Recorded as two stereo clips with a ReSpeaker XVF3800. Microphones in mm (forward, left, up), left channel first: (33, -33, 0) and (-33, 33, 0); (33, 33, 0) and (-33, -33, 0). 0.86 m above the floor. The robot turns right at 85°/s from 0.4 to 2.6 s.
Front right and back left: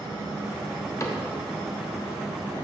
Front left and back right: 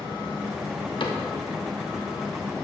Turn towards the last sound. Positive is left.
turn(degrees=145)